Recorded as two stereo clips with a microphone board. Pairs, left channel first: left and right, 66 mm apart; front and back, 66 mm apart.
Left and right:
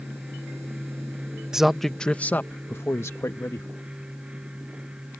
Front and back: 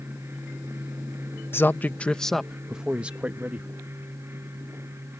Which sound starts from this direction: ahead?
A man speaking, at 1.5 s.